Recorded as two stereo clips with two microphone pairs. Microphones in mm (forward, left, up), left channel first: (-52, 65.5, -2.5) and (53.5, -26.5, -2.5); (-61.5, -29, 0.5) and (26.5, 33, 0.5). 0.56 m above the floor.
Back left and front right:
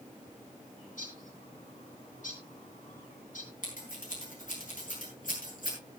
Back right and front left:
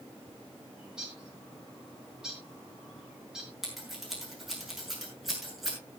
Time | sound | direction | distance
0.8 | a bird | 120° left | 6 m
3.6 | scissors | 125° left | 7 m